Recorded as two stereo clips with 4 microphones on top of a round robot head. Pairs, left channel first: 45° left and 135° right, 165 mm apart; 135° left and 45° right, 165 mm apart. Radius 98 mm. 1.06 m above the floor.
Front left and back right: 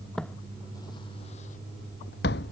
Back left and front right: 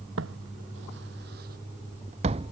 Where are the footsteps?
45° right; by 2.5 s 15° left.